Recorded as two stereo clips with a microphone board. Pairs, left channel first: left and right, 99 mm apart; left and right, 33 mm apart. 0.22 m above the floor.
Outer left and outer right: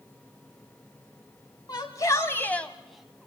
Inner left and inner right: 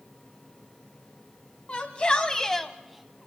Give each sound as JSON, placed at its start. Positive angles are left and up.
{"t": 1.7, "sound": "a shout", "side_deg": 45, "distance_m": 1.3}